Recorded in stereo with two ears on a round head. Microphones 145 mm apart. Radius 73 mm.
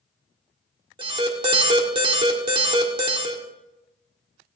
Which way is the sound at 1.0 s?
35° right (ahead or behind).